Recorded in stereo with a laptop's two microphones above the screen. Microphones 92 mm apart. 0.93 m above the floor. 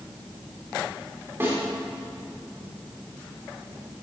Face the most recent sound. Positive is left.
turn(degrees=-25)  # may be behind; listen again after turning